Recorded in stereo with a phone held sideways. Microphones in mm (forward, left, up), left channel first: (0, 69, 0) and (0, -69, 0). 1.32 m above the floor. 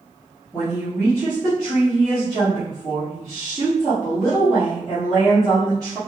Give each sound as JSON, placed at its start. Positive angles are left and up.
{"t": 0.5, "sound": "a woman speaking", "side_deg": 5, "distance_m": 0.9}